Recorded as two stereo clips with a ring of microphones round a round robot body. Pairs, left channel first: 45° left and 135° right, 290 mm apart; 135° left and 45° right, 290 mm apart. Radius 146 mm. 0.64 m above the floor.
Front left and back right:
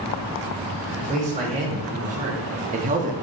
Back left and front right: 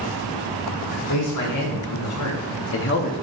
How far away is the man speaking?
About 1.9 m.